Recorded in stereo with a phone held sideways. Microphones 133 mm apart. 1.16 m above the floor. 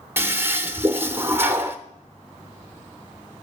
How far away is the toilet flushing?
About 0.8 m.